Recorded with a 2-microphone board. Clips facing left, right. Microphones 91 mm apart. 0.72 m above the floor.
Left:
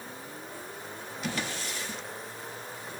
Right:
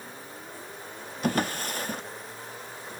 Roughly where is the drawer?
Right.